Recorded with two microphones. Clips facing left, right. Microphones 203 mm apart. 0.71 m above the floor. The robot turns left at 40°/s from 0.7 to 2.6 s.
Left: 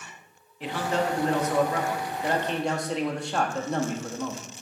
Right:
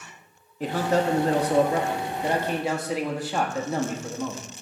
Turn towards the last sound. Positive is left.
turn(degrees=-175)